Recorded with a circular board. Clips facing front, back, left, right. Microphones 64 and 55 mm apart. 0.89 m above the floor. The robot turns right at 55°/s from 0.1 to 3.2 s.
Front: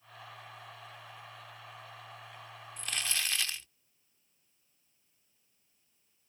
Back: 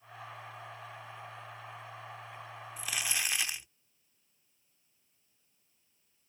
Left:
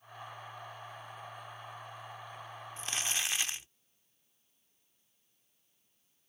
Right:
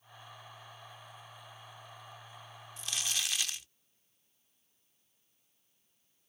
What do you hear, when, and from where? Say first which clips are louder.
2.8 s crumpling: back 1 dB, left 1 dB; 100° left; by 3.7 s 120° left